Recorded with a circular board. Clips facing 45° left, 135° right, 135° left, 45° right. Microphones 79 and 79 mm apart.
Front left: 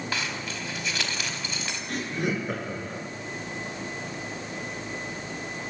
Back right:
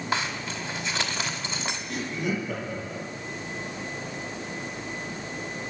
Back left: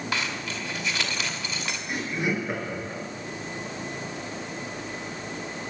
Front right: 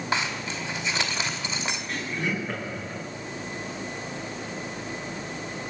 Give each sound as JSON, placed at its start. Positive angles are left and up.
{"t": 0.1, "sound": "a zipper", "azimuth_deg": -90, "distance_m": 1.9}
{"t": 1.9, "sound": "laughter", "azimuth_deg": 60, "distance_m": 4.0}